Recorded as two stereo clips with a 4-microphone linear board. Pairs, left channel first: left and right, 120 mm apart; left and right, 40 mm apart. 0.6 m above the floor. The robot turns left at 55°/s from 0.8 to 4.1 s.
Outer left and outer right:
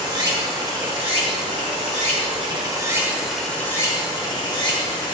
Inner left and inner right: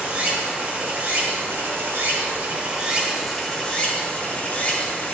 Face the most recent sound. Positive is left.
turn(degrees=135)